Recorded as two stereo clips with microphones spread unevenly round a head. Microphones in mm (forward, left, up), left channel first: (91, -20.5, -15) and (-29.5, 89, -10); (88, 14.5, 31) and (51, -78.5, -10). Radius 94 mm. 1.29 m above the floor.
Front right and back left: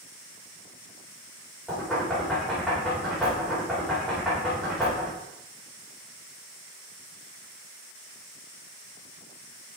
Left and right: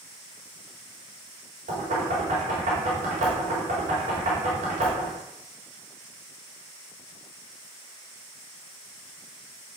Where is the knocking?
135° right, 4 m.